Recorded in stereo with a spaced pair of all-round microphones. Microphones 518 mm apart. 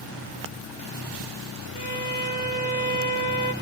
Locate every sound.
1.8 s a violin: 50° left (ahead or behind), 1.4 m